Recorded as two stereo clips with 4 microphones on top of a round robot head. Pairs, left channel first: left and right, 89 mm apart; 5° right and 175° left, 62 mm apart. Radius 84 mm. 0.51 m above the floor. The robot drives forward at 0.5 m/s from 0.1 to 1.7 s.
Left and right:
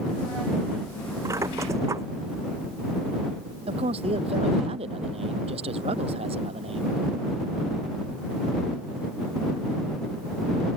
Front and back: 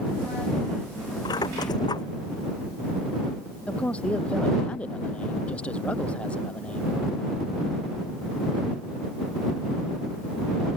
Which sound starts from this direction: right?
A man speaking, at 3.7 s.